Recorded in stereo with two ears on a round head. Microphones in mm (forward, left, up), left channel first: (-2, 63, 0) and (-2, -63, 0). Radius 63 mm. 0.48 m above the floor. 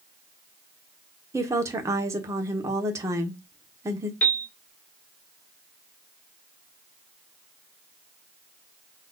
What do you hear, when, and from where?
1.3 s a woman speaking: 20° right (ahead or behind), 1.0 m
4.2 s a piano: 10° left (ahead or behind), 0.8 m